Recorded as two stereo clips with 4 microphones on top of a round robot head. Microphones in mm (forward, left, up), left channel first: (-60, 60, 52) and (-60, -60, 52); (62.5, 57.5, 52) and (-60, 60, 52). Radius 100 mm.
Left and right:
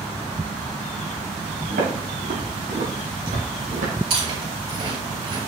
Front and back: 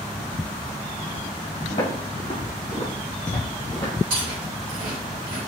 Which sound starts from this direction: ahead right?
Footsteps, at 1.7 s.